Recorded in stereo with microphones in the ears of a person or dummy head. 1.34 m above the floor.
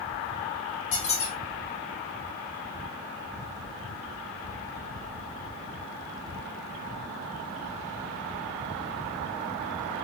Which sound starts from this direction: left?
A squeak, at 0.9 s.